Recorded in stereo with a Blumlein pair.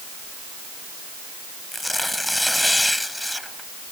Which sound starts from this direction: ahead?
Tearing paper, at 1.7 s.